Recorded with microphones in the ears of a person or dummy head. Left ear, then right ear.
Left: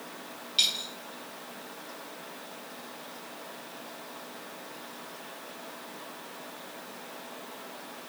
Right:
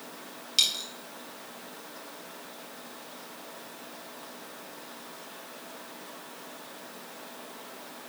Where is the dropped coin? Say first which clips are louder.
Right 1 dB; 15° right (ahead or behind), 3 m.